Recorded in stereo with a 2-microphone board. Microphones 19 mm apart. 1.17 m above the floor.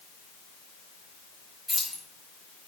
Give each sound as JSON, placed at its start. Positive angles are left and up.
{"t": 1.7, "sound": "keys jangling", "side_deg": 0, "distance_m": 5.0}